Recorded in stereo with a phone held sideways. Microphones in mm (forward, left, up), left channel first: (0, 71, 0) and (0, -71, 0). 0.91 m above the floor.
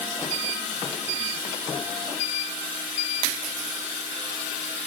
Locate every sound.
Only background noise.